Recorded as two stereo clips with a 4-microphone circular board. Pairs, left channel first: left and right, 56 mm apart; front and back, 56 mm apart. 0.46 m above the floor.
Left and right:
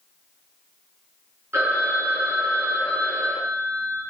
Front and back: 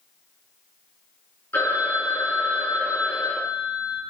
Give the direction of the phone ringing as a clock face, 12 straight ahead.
1 o'clock.